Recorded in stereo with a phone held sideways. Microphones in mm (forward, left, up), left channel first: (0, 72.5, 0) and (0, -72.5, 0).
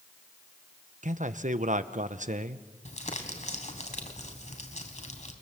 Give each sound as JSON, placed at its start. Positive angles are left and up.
{"t": 1.0, "sound": "a man speaking", "side_deg": -60, "distance_m": 1.1}
{"t": 2.9, "sound": "crumpling", "side_deg": 55, "distance_m": 3.0}